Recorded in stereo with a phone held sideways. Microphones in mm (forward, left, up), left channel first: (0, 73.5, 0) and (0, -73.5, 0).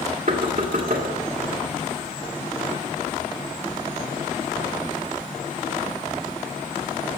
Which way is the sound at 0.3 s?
70° right (ahead or behind).